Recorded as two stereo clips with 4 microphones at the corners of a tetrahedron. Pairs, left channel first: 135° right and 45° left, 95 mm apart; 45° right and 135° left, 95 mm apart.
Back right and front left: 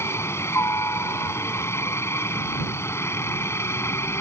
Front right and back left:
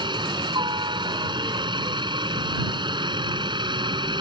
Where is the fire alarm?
No fire alarm in this recording.